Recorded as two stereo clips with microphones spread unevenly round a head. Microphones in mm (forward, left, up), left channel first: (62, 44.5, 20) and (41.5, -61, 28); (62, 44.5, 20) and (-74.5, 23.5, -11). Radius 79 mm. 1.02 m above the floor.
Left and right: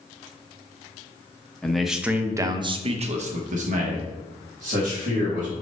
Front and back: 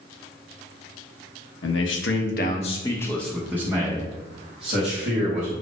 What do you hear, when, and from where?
1.6 s a man speaking: 5° right, 0.9 m; by 5.5 s 120° right, 2.0 m